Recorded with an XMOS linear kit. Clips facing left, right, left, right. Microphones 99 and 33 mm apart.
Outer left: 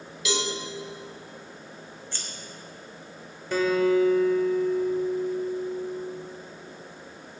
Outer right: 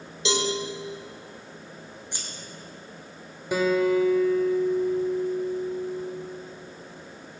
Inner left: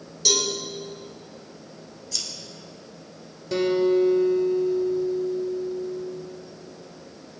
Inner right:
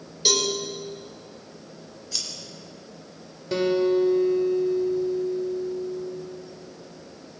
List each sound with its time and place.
0.2 s a cowbell: 30° right (ahead or behind), 3.5 m
2.1 s scissors: 15° right (ahead or behind), 3 m
3.5 s a guitar: 15° right (ahead or behind), 1.9 m